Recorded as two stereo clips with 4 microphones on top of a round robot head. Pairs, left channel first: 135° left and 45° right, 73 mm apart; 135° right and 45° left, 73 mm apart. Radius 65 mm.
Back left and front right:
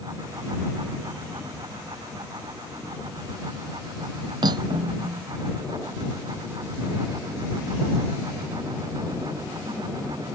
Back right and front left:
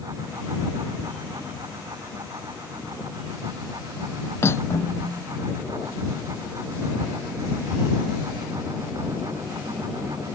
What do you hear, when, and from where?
4.4 s cutlery clinking: 75° right